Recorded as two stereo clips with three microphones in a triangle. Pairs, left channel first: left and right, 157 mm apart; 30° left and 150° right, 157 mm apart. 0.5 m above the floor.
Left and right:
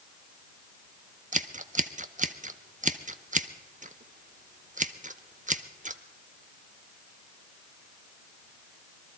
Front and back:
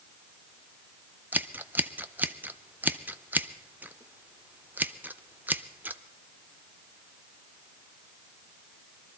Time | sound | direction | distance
1.3 | scissors | 70° right | 0.6 m